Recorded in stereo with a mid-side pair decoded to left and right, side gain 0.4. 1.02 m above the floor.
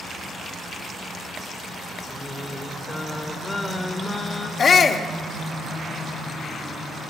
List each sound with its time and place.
2.1 s singing: 20° left, 1.8 m
4.6 s a shout: 45° left, 1.5 m